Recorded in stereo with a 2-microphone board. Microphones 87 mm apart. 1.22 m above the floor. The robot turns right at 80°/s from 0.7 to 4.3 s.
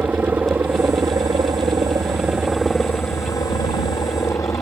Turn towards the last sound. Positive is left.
turn(degrees=135)